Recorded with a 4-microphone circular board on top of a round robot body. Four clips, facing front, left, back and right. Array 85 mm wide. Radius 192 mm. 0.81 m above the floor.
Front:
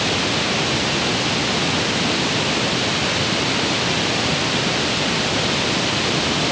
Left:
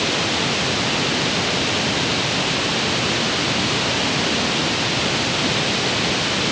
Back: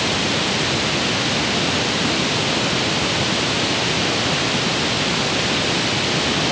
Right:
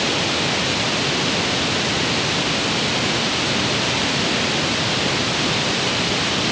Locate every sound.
Only background noise.